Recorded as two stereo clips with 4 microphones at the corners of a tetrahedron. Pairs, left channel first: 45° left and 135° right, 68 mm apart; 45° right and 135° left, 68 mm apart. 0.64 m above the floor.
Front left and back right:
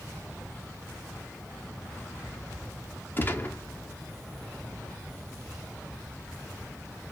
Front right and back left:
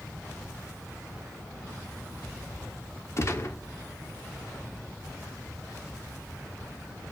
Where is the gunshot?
10° right, 1.1 m.